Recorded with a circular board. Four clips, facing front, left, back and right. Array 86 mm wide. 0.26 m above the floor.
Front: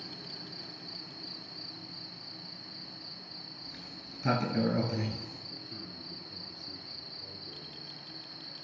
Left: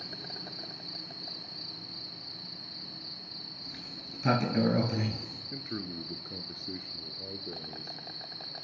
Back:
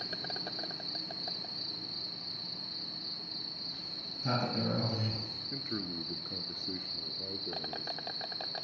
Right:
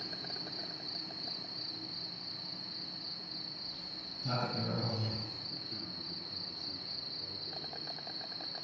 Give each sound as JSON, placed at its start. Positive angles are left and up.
{"t": 0.0, "sound": "an insect", "azimuth_deg": 175, "distance_m": 1.0}
{"t": 3.6, "sound": "a sliding door", "azimuth_deg": 65, "distance_m": 5.5}
{"t": 5.5, "sound": "a man speaking", "azimuth_deg": 130, "distance_m": 3.5}